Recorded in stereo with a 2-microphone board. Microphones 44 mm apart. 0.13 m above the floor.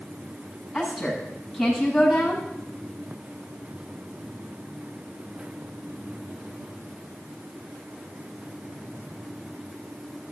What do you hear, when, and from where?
0.7 s a woman speaking: centre (ahead or behind), 8 m